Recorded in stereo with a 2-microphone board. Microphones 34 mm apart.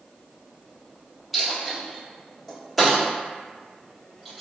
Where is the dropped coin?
Centre (ahead or behind), 1.3 m.